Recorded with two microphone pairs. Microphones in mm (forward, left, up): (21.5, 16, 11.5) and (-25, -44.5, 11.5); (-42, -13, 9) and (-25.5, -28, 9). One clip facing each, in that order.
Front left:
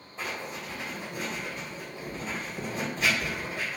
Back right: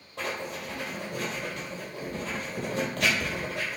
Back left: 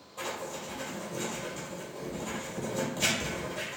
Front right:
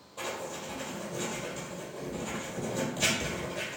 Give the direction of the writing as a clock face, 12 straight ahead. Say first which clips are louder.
Back right 2 dB, even; 4 o'clock.